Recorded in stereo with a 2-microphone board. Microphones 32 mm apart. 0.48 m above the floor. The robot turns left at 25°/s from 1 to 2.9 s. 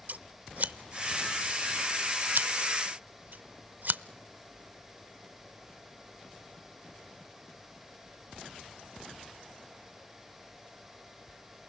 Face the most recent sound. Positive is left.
turn(degrees=-65)  # may be behind; listen again after turning